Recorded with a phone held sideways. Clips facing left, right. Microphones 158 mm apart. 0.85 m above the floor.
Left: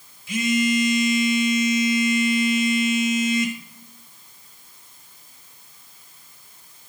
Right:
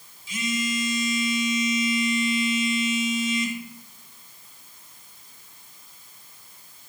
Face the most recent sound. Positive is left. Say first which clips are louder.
# left 7 dB
turn(degrees=60)  # may be behind; listen again after turning